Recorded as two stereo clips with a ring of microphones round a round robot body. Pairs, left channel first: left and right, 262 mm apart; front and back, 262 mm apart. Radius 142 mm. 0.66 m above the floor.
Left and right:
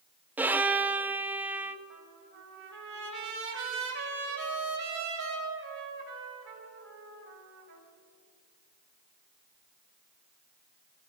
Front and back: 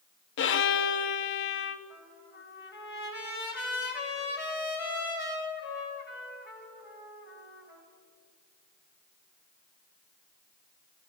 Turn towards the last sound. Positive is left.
turn(degrees=-50)